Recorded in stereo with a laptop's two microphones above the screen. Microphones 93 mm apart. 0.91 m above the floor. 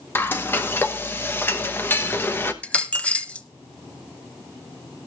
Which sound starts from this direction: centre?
A dropped coin, at 2.6 s.